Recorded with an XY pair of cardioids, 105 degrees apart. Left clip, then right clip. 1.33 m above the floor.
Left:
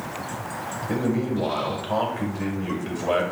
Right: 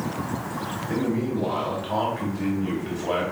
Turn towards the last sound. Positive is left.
turn(degrees=35)